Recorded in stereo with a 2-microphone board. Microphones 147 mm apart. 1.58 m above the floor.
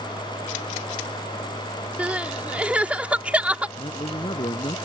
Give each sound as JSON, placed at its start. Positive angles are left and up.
{"t": 2.0, "sound": "crying", "side_deg": -10}
{"t": 3.8, "sound": "a man speaking", "side_deg": 40}